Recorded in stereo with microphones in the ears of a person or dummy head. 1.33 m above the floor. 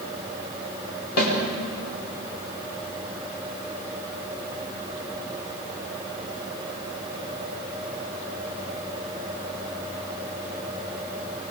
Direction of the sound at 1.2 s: 85° left.